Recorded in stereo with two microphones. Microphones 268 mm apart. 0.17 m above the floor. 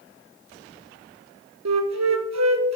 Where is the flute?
75° right (ahead or behind), 0.7 m.